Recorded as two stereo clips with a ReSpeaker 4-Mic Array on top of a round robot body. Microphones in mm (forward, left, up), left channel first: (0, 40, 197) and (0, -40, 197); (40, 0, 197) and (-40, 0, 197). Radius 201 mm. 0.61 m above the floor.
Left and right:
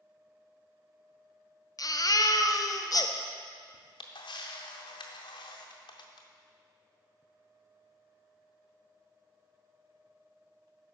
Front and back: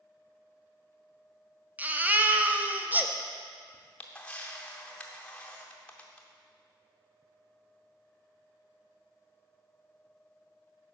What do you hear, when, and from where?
1.8 s a baby crying: 115° left, 0.8 m
3.7 s a camera shutter: 75° left, 0.6 m